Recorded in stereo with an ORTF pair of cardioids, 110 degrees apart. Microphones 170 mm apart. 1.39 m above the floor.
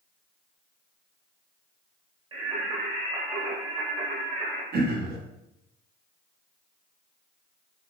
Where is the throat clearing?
70° right, 1.0 m.